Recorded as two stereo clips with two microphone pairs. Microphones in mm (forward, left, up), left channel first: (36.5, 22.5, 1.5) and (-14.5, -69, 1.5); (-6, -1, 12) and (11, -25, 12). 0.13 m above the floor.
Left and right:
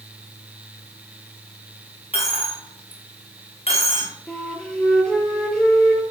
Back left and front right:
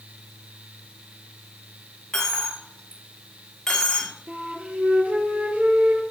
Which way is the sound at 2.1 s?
55° left.